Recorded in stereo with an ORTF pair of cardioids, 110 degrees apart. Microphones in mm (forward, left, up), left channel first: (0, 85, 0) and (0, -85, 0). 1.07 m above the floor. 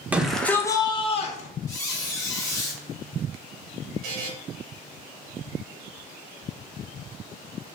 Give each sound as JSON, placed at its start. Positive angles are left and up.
{"t": 0.1, "sound": "a shout", "azimuth_deg": -10, "distance_m": 0.7}
{"t": 1.7, "sound": "a squeak", "azimuth_deg": 15, "distance_m": 1.0}
{"t": 4.0, "sound": "a buzzer", "azimuth_deg": -60, "distance_m": 1.1}